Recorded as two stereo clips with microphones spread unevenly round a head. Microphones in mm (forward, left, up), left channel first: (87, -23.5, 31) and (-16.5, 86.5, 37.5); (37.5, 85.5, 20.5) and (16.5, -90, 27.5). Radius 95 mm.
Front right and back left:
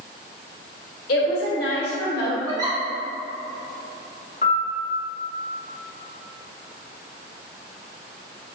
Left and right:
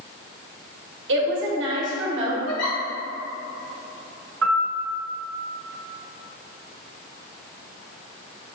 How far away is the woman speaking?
About 1.1 m.